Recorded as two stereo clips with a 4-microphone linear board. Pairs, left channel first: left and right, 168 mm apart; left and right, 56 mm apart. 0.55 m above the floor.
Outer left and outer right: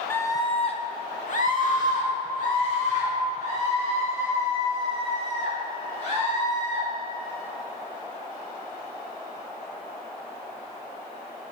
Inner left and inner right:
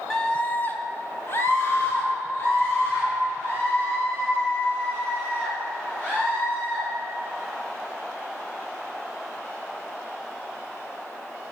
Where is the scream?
10° left (ahead or behind), 0.8 m; by 6.8 s 45° left (ahead or behind), 5 m.